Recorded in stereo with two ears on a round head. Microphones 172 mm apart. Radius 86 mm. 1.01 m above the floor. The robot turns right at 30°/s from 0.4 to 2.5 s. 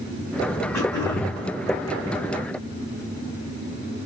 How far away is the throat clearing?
About 1.4 m.